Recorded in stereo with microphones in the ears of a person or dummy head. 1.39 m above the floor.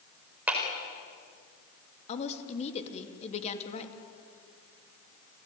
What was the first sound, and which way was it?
A clap, 5° right (ahead or behind).